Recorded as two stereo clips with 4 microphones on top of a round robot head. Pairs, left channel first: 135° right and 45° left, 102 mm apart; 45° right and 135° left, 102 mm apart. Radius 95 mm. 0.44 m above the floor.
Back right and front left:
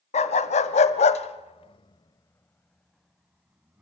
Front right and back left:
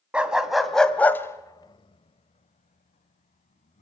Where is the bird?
No bird in this recording.